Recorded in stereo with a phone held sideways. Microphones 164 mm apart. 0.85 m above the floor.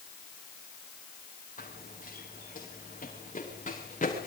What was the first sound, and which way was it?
Running footsteps, 55° left (ahead or behind).